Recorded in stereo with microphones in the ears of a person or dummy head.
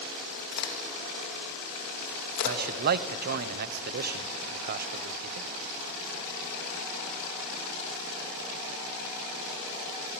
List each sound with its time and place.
0.5 s a crack: 55° left (ahead or behind), 3 m
2.5 s a man speaking: 50° right (ahead or behind), 1.0 m